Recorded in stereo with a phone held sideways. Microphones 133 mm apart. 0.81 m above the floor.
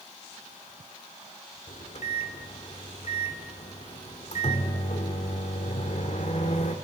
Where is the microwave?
60° left (ahead or behind), 1.6 m.